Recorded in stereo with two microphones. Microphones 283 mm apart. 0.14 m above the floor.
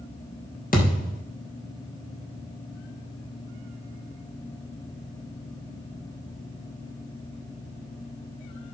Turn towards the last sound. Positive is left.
turn(degrees=30)  # may be behind; listen again after turning